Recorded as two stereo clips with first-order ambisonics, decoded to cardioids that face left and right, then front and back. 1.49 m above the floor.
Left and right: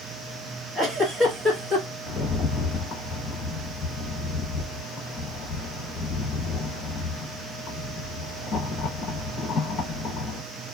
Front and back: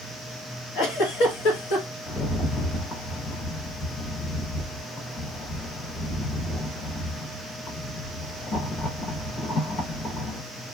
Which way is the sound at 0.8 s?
15° right.